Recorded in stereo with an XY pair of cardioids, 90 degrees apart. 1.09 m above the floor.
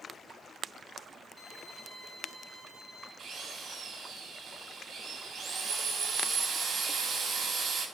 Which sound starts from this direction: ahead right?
A drill, at 3.2 s.